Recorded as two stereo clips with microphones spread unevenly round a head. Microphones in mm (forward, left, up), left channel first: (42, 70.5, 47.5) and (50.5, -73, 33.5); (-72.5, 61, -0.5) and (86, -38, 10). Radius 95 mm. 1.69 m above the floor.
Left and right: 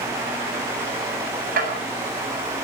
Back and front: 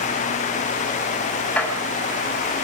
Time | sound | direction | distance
1.6 | dishes clattering | 130° right | 8 m